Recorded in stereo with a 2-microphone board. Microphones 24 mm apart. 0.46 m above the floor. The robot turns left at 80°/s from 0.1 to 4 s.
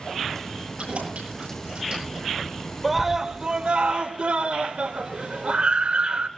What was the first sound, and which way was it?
Keys jangling, 45° right (ahead or behind).